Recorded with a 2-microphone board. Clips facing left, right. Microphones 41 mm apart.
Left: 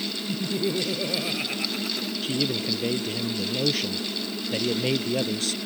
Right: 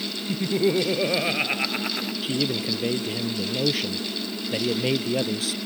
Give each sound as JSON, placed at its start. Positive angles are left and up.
{"t": 0.3, "sound": "laughter", "side_deg": -35}
{"t": 2.2, "sound": "a man speaking", "side_deg": -5}